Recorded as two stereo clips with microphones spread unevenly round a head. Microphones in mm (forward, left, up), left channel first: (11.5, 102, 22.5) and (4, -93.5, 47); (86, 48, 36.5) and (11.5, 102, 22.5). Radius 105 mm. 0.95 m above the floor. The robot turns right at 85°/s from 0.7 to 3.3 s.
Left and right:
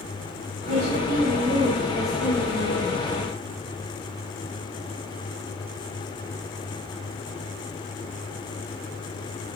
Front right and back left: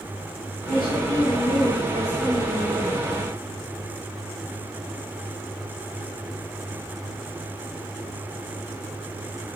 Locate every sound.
0.7 s a woman speaking: 105° right, 2.5 m; by 3.0 s 90° left, 2.5 m